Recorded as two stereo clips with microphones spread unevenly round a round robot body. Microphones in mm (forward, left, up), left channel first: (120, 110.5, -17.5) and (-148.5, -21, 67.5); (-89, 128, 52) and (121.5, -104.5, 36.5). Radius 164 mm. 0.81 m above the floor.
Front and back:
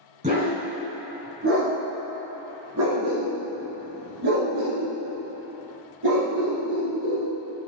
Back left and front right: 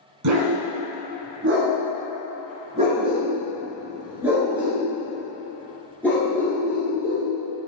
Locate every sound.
0.2 s a dog barking: 90° right, 2.5 m; by 7.3 s 150° right, 4.5 m